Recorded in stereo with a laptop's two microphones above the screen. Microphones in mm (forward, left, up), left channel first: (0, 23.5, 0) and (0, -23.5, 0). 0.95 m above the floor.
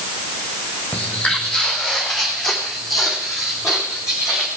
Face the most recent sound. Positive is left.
turn(degrees=-10)  # may be behind; listen again after turning